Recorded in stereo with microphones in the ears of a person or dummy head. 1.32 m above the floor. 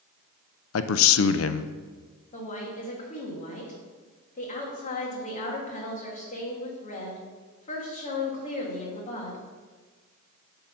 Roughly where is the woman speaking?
Left.